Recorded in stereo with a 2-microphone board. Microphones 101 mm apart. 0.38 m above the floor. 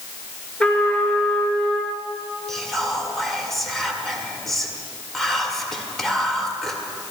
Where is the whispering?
5° left (ahead or behind), 1.3 m.